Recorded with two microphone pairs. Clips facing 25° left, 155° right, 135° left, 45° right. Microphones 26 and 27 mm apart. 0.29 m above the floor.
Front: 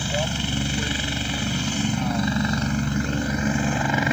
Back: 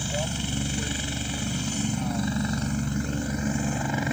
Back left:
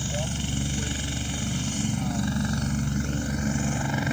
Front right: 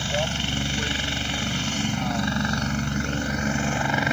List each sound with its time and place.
0.0 s a helicopter: 20° right; by 4.2 s 5° right